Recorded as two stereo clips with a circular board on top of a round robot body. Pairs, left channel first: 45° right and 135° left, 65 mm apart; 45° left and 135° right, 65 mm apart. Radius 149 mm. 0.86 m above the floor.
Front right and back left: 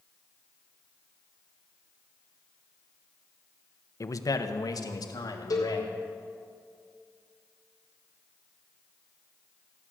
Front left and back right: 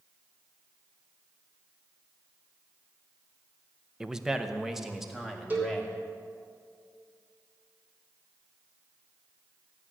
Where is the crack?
I don't hear a crack.